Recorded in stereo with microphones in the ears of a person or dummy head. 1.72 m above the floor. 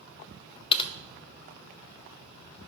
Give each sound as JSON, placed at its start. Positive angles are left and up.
{"t": 0.7, "sound": "typing on a keyboard", "side_deg": 30, "distance_m": 0.6}